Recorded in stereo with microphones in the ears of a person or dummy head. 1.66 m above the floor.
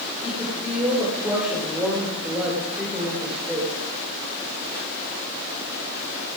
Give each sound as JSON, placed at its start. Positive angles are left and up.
{"t": 0.2, "sound": "a woman speaking", "side_deg": -5, "distance_m": 5.5}